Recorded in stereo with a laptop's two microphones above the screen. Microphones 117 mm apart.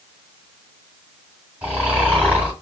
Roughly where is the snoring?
Centre.